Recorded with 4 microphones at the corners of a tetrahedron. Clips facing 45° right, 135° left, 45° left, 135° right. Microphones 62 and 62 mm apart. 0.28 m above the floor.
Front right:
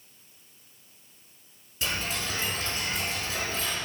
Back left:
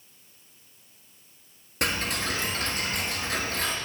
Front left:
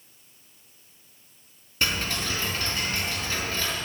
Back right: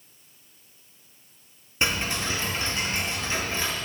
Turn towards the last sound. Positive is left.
turn(degrees=155)